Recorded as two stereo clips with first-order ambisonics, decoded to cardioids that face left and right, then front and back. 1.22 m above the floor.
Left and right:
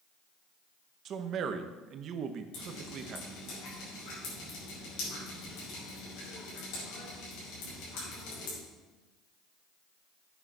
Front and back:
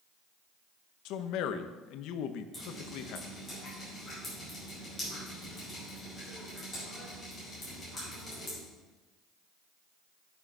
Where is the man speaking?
35° right, 0.8 m.